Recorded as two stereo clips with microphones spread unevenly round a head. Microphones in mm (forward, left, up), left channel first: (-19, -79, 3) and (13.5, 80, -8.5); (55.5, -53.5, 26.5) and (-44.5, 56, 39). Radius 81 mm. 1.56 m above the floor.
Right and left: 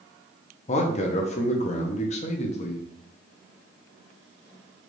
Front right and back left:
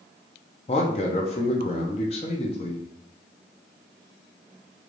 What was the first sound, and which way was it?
A man speaking, 90° right.